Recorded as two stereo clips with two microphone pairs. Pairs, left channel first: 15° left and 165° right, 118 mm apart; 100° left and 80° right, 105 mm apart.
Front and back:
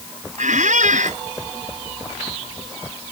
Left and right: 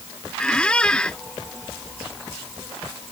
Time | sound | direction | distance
0.4 | a squeak | straight behind | ?